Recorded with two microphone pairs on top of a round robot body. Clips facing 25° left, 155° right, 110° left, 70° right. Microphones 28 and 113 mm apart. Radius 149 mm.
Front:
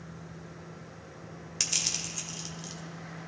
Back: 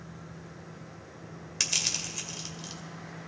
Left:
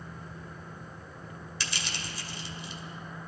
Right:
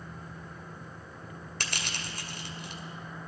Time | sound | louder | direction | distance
1.6 | crushing | back 2 dB, right 1 dB | 75° right | 2 m